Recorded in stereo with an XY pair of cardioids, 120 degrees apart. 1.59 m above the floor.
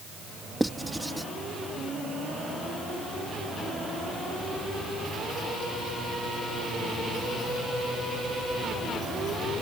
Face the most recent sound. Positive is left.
turn(degrees=-5)